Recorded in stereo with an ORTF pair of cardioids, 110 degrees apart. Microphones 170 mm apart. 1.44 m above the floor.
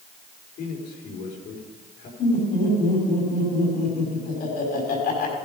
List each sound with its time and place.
0.6 s a man speaking: 70° left, 5 m
2.2 s laughter: 65° left, 5.5 m